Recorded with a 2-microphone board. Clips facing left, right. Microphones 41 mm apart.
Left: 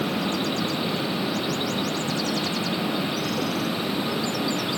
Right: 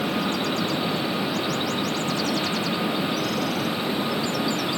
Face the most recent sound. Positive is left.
No sound to turn to.